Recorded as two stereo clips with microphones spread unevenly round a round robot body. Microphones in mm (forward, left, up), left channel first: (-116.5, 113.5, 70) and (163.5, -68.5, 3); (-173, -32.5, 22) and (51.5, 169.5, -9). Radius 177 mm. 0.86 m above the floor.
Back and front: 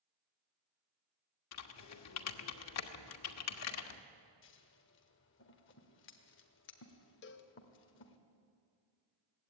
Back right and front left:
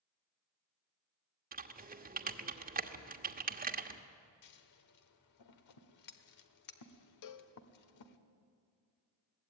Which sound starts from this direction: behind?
Scissors, at 4.4 s.